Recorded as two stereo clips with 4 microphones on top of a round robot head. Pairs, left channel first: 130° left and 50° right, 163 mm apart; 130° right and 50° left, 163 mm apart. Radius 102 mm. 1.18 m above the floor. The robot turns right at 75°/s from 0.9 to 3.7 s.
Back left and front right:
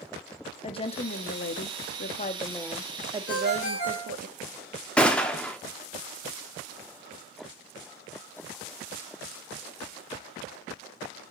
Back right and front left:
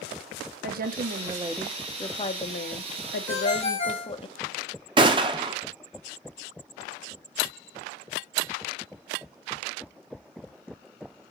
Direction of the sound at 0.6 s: 75° left.